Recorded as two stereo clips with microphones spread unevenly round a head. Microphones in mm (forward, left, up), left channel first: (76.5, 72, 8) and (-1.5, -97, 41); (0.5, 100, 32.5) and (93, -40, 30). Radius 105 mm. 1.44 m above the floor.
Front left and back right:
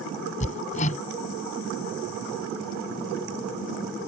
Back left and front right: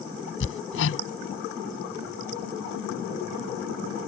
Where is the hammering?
130° left.